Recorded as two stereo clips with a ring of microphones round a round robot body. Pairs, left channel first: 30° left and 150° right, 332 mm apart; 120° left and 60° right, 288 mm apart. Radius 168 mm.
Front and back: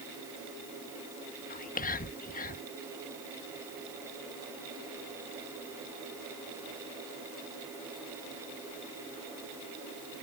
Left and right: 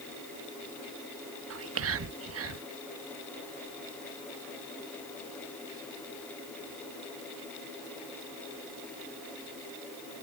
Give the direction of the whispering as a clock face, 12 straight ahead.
1 o'clock.